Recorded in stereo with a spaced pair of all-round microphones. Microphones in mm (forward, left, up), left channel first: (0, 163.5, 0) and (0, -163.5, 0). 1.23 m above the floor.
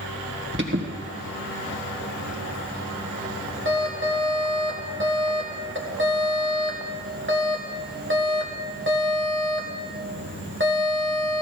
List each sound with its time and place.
0.5 s an alarm: 35° right (ahead or behind), 1.8 m